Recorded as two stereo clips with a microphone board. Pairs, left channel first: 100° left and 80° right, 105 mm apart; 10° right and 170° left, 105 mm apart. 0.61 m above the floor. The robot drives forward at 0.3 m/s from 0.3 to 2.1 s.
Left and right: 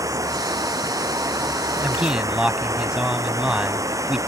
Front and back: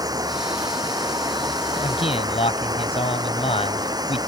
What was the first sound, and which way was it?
Running water, 135° right.